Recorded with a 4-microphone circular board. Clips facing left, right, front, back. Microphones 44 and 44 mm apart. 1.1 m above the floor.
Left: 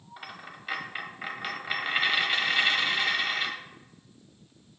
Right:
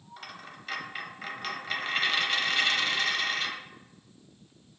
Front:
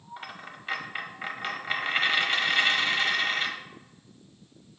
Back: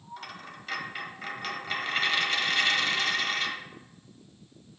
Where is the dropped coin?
35° left, 1.0 m.